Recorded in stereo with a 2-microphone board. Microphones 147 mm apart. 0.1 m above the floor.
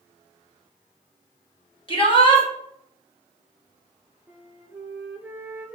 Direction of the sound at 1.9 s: 35° left (ahead or behind).